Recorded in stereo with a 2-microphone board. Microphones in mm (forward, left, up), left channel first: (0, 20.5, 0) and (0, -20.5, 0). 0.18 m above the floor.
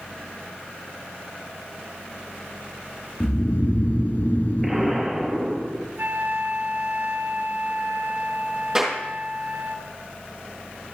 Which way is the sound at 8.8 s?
10° right (ahead or behind).